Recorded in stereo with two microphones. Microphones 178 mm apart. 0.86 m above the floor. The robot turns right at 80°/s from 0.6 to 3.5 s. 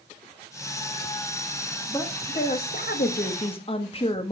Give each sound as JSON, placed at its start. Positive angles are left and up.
{"t": 1.9, "sound": "a woman speaking", "azimuth_deg": 15, "distance_m": 1.0}